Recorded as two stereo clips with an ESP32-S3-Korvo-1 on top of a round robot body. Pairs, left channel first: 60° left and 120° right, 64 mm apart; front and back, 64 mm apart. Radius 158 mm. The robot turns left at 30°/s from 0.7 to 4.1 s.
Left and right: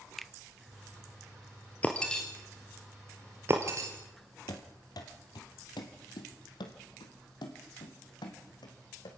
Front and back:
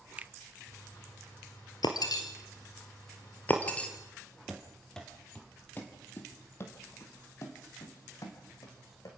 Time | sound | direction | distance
0.2 | a finger snap | 150° left | 0.6 m
1.8 | breaking glass | 10° right | 1.0 m
4.5 | running footsteps | 95° left | 1.2 m